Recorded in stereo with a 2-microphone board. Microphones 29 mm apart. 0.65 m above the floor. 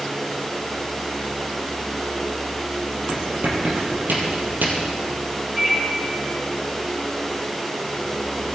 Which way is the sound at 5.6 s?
5° right (ahead or behind).